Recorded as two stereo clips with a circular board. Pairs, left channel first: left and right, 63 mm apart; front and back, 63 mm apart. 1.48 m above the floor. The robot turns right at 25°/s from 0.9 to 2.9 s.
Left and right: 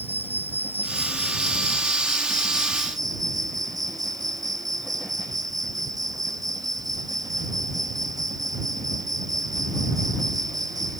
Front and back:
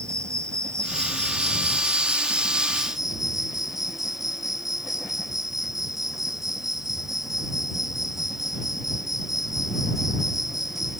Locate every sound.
0.0 s an insect: 145° right; by 11.0 s 95° right